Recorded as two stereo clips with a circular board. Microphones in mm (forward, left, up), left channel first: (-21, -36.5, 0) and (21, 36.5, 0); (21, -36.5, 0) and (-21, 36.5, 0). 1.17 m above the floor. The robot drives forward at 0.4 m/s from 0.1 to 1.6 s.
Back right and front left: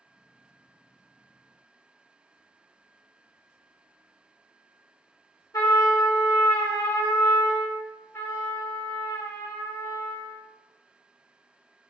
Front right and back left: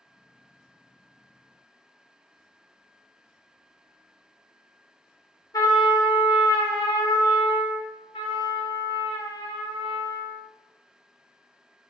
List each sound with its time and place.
5.5 s a trumpet: 85° right, 0.7 m
8.1 s a trumpet: 55° right, 0.6 m